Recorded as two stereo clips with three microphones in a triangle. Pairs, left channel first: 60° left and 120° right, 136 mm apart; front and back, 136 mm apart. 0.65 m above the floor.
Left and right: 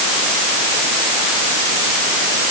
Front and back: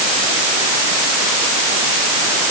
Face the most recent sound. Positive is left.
No sound to turn to.